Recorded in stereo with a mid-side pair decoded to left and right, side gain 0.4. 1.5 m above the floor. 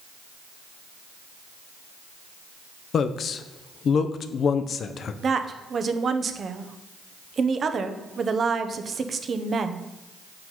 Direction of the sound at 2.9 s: 60° left.